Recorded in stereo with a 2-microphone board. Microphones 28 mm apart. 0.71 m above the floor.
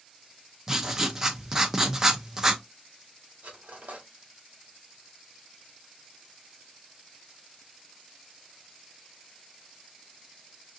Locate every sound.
0.7 s writing: 15° right (ahead or behind), 0.7 m
3.4 s cutlery clinking: 65° right (ahead or behind), 1.3 m